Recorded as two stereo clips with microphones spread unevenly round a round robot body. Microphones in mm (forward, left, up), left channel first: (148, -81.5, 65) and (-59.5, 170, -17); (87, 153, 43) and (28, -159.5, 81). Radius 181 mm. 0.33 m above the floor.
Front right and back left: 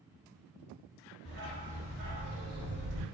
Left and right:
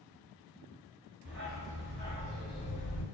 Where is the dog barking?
160° right, 1.1 m; by 3.0 s 90° left, 0.5 m.